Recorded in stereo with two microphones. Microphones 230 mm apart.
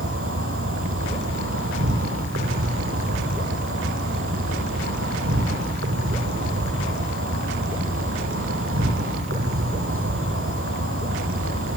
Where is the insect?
70° right (ahead or behind), 3.5 m.